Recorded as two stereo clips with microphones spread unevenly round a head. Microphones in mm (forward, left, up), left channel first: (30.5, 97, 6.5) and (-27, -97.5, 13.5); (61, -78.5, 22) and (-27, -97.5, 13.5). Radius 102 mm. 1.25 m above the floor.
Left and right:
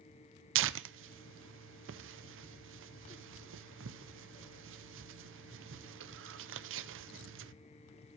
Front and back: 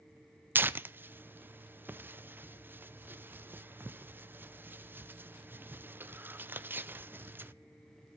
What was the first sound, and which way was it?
Tearing paper, 105° right.